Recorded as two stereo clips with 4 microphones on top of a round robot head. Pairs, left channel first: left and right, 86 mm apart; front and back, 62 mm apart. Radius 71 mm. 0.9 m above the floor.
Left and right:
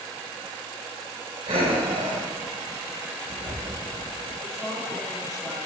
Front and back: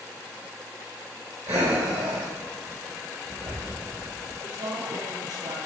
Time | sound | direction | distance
1.5 | breathing | 125° right | 2.5 m
4.4 | a woman speaking | 170° left | 2 m